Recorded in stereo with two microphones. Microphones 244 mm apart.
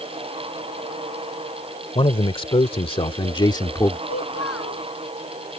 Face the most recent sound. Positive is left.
turn(degrees=70)  # may be behind; listen again after turning